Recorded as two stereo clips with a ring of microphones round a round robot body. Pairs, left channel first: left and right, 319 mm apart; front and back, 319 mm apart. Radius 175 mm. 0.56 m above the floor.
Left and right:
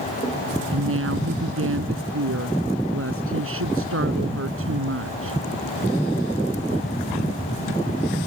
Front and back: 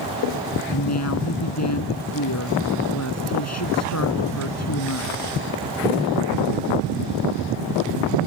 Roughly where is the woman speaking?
Ahead right.